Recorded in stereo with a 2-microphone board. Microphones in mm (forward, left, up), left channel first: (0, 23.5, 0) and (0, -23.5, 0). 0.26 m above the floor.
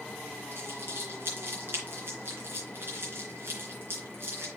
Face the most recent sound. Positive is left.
turn(degrees=-50)  # may be behind; listen again after turning